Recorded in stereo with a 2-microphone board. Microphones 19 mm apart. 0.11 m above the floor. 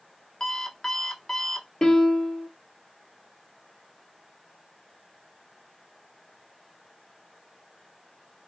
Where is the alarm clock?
30° left (ahead or behind), 0.7 m.